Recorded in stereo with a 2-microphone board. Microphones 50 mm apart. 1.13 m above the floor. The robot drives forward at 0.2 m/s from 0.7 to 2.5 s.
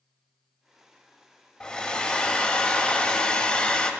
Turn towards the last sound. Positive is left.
turn(degrees=25)  # may be behind; listen again after turning